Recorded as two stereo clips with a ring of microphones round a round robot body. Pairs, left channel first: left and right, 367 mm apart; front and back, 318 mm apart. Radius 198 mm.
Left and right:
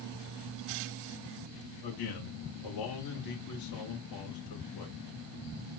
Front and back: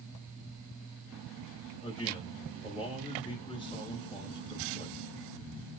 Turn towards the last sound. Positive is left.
turn(degrees=75)